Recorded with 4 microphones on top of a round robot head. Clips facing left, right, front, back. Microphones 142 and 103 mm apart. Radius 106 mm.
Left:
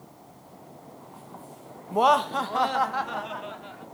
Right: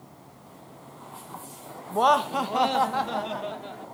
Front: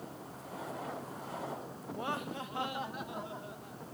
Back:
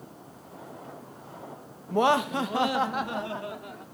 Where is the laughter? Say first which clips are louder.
Even, back 15 dB; 165° left; by 3.8 s 140° right.